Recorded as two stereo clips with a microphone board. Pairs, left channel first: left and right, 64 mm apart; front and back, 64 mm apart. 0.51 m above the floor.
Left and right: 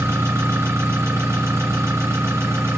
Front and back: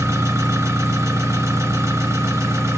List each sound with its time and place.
0.0 s an engine running: 140° right, 2.5 m